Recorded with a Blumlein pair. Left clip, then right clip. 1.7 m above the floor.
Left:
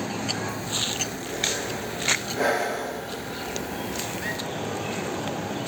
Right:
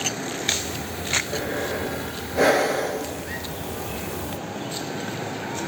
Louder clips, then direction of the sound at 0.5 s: Right 1 dB; 35° right.